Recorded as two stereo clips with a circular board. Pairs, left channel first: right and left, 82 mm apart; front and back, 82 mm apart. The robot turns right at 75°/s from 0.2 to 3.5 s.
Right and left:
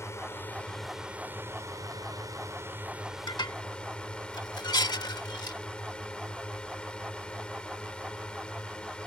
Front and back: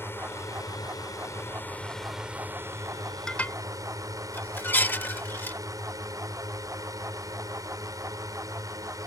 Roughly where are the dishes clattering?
Right.